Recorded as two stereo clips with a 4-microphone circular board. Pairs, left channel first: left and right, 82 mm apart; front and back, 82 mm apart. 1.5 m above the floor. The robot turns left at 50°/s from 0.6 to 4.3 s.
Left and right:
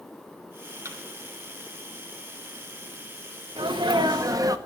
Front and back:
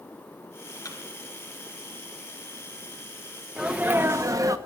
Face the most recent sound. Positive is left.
turn(degrees=-130)